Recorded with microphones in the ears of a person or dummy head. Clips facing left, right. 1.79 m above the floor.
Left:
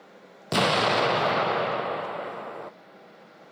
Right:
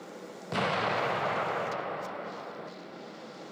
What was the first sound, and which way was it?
An explosion, 60° left (ahead or behind).